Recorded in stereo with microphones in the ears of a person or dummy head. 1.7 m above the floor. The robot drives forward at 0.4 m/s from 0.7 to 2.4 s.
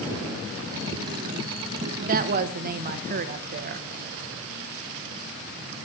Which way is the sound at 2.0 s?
45° right (ahead or behind).